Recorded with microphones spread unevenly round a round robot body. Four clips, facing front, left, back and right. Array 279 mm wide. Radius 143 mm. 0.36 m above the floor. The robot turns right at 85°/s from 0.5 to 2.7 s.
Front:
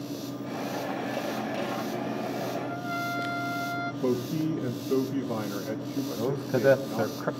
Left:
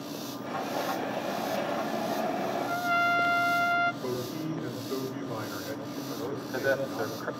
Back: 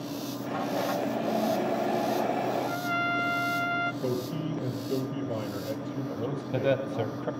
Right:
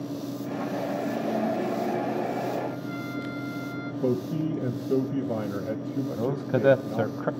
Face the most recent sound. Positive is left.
turn(degrees=-75)